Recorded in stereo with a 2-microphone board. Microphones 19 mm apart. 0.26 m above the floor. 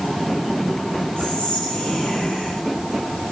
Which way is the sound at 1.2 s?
70° left (ahead or behind).